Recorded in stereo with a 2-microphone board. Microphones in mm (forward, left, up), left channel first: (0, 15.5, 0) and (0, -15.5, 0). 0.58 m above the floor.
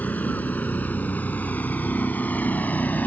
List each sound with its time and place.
0.0 s a vehicle: 70° left (ahead or behind); by 3.1 s 75° left (ahead or behind)